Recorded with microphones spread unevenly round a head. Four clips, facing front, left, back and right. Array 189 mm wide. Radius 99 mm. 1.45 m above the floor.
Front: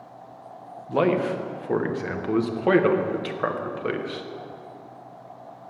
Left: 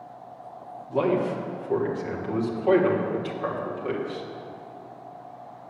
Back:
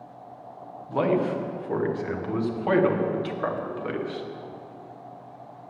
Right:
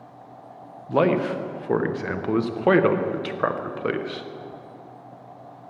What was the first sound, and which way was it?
A man speaking, 55° right.